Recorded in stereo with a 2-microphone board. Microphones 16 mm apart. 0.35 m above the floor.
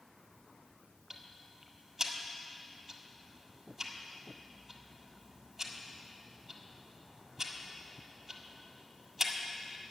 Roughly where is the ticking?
Right.